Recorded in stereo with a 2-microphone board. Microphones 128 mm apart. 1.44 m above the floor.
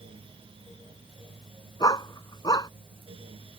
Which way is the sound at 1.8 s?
30° left (ahead or behind).